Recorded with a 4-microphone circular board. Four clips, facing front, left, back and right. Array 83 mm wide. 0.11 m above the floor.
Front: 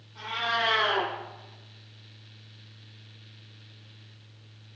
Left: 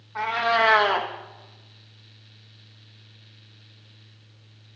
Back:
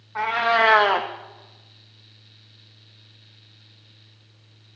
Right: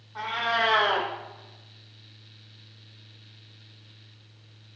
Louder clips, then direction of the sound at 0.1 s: Left 5 dB, back 10 dB; 160° left.